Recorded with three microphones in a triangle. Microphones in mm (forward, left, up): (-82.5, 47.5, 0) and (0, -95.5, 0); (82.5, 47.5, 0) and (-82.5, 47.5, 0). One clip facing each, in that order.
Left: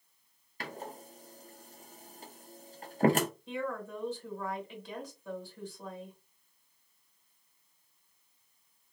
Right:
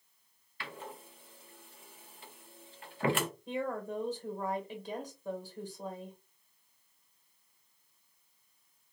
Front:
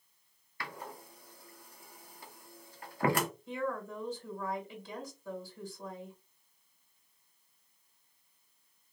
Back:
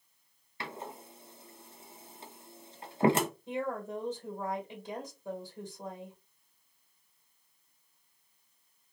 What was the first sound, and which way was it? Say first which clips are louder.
A door slam: left 3 dB, back 2 dB; 125° left.